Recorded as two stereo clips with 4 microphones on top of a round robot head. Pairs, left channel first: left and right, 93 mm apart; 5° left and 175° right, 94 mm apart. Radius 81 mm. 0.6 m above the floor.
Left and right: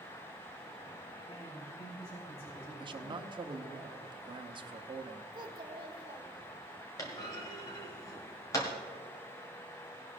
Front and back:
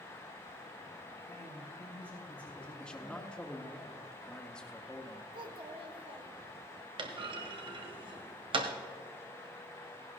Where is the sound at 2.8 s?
75° right, 1.0 m.